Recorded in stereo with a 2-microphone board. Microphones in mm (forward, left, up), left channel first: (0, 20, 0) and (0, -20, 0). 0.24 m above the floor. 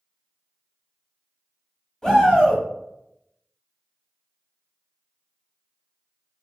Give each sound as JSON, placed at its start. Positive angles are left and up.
{"t": 2.0, "sound": "a shout", "side_deg": 15, "distance_m": 1.0}